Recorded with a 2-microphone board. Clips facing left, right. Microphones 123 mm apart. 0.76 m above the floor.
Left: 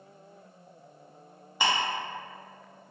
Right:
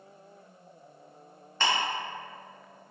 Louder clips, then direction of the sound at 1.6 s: Left 1 dB; 10° left (ahead or behind).